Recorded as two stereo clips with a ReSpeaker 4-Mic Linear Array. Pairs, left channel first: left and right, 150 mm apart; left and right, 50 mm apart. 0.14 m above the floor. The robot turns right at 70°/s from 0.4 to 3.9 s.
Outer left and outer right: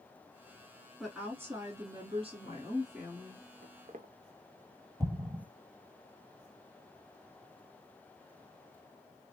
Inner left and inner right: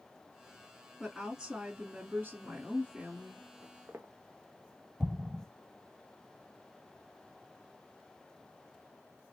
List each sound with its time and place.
1.0 s a woman speaking: 175° left, 1.4 m; by 3.5 s 10° right, 1.4 m
3.6 s footsteps: 80° right, 0.6 m; by 4.1 s 60° right (ahead or behind), 0.6 m
5.0 s an explosion: 20° right (ahead or behind), 0.9 m